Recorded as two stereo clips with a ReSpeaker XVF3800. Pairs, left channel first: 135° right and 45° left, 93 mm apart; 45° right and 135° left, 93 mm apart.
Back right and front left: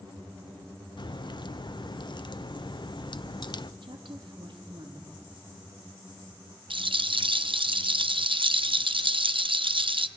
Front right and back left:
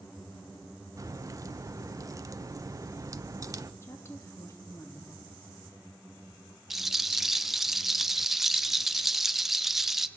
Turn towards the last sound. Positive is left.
turn(degrees=50)